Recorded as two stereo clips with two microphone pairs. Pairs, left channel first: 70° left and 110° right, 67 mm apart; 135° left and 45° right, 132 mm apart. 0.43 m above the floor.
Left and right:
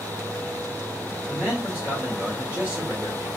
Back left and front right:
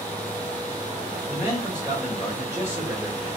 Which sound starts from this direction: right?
A man speaking, at 1.3 s.